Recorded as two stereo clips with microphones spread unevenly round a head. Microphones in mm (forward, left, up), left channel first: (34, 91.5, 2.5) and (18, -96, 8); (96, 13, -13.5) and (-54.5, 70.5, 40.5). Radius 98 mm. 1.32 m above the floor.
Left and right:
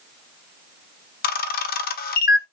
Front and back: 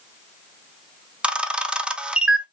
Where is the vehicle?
I don't hear a vehicle.